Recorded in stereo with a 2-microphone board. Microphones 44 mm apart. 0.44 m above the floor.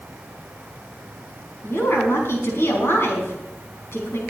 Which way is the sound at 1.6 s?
70° left (ahead or behind).